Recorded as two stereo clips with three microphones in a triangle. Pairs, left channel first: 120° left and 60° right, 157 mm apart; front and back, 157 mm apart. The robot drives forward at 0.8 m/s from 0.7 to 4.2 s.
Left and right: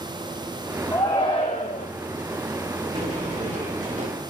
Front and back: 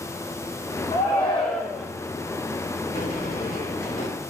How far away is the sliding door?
About 4 m.